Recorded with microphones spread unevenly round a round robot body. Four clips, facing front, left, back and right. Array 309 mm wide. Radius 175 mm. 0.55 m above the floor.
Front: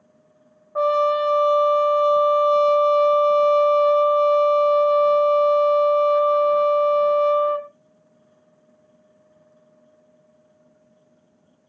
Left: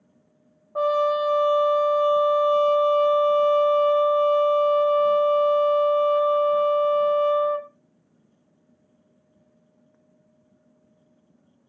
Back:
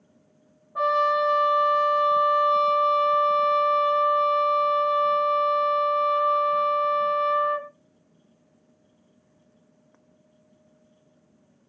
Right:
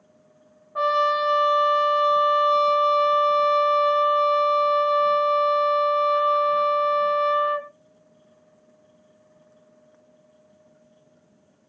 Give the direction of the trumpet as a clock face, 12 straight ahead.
11 o'clock.